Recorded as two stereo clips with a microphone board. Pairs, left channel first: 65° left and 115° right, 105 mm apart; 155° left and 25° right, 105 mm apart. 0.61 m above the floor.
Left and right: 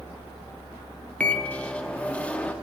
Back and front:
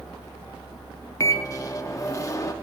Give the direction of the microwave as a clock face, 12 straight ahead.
8 o'clock.